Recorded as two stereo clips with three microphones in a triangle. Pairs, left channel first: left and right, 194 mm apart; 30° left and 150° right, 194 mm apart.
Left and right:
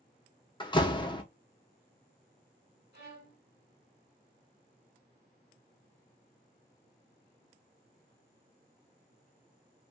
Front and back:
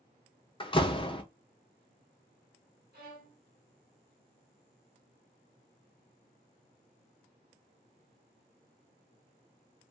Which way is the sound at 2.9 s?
120° right.